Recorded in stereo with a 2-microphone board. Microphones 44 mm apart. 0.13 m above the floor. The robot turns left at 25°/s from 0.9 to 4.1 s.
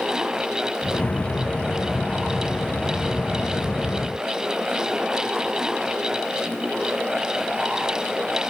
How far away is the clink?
No clink in this recording.